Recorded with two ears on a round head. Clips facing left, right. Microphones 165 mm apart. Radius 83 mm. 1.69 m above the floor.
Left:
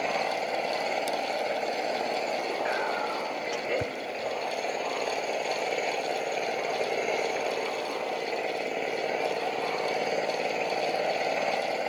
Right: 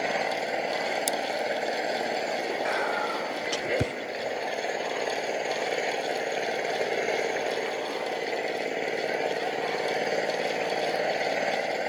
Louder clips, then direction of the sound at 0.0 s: Right 1 dB; 10° right (ahead or behind).